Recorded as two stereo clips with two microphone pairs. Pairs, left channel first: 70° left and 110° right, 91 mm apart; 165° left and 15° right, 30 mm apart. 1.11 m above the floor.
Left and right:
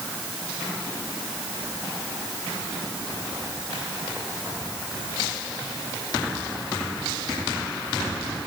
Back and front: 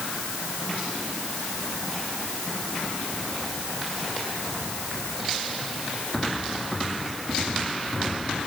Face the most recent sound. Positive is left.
No sound to turn to.